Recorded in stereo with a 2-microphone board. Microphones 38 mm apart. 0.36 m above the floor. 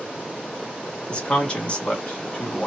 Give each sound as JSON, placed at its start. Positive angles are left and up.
{"t": 1.1, "sound": "a man speaking", "side_deg": 25, "distance_m": 1.0}